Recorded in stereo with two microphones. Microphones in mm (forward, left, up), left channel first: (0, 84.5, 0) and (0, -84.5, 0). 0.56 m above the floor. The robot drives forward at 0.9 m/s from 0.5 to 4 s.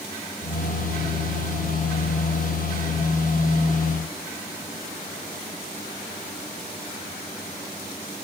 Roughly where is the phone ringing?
I don't hear a phone ringing.